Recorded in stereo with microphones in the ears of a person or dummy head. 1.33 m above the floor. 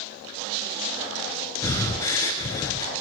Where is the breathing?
15° left (ahead or behind), 0.7 m.